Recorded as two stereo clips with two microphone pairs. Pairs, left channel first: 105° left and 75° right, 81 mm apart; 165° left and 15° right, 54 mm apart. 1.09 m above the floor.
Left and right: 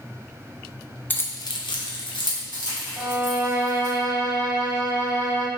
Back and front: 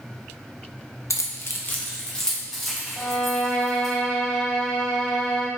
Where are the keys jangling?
170° left, 0.5 m; by 3.9 s 70° left, 2.5 m.